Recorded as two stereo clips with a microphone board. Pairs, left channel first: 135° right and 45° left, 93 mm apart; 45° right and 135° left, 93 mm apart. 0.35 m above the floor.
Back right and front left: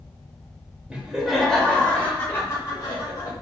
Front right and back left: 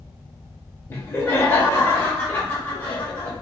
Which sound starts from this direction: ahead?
Laughter, at 0.9 s.